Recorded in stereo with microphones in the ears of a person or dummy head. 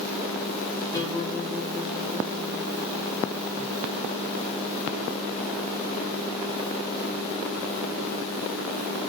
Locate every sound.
0.9 s a guitar: 20° left (ahead or behind), 4 m